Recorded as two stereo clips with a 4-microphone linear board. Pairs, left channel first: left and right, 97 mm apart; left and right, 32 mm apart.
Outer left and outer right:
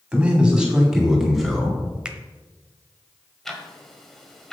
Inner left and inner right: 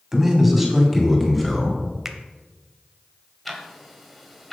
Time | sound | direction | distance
0.1 | a man speaking | 15° right (ahead or behind) | 2.0 m
2.0 | a finger snap | 10° right (ahead or behind) | 0.7 m
3.5 | ticking | 5° left (ahead or behind) | 1.3 m